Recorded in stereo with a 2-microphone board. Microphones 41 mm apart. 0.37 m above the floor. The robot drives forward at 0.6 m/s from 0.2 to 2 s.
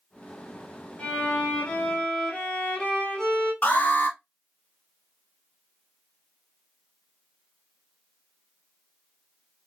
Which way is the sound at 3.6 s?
40° left (ahead or behind).